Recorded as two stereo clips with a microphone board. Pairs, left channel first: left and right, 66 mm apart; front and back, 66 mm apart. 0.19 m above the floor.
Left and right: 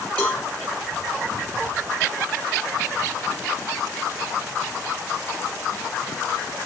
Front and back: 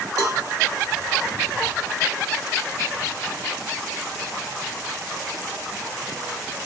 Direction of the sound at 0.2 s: 160° left.